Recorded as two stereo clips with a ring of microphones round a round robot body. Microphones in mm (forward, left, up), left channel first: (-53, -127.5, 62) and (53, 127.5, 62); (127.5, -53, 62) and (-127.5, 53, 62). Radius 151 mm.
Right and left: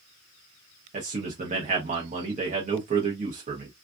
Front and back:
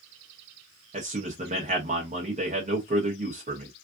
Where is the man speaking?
110° left, 1.0 m.